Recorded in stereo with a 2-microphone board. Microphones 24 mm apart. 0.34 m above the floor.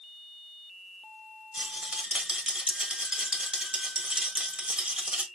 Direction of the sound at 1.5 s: 45° right (ahead or behind).